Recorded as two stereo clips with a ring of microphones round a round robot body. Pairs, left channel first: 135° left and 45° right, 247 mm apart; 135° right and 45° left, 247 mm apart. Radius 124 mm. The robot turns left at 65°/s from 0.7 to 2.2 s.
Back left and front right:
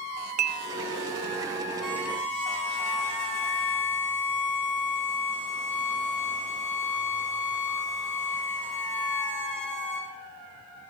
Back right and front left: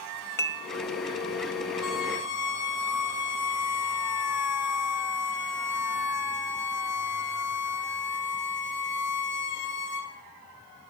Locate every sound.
0.4 s dishes clattering: 65° right, 0.5 m
1.8 s a violin: 135° right, 3 m; by 10.1 s 160° right, 3 m